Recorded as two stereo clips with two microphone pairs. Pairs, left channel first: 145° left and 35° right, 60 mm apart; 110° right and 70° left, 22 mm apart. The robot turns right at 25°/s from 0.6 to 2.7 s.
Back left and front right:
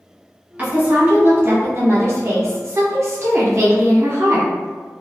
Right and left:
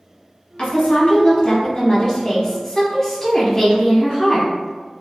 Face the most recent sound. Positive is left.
turn(degrees=-40)